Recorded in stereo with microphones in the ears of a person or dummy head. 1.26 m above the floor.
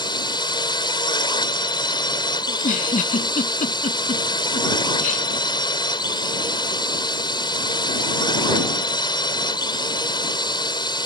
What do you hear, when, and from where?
0.0 s a drone: 25° left (ahead or behind)
2.5 s a giggle: 40° left (ahead or behind)